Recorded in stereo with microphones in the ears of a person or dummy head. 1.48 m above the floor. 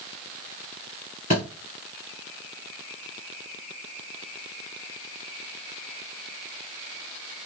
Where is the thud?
35° left (ahead or behind), 2 m.